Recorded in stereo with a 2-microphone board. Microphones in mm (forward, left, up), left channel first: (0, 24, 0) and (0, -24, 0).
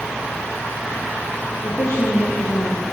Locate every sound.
1.6 s a woman speaking: 80° left, 6.5 m